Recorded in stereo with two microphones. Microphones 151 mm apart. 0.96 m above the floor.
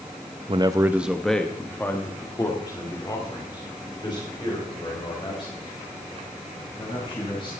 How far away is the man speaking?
About 0.6 m.